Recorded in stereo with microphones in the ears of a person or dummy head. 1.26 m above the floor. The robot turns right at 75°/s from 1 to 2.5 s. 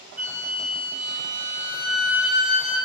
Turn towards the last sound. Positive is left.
turn(degrees=90)